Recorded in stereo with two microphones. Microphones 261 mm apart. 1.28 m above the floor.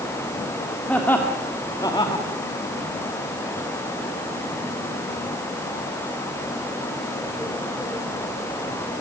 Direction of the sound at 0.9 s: 5° left (ahead or behind).